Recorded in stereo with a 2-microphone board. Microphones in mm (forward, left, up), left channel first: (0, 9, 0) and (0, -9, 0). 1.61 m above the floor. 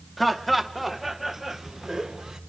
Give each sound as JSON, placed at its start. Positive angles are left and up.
{"t": 0.2, "sound": "laughter", "side_deg": 5, "distance_m": 2.0}